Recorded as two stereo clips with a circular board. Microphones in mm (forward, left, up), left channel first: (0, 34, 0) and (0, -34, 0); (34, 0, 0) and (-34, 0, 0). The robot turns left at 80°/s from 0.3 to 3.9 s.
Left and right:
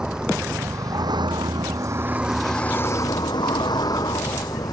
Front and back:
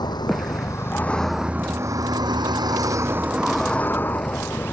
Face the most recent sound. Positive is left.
turn(degrees=60)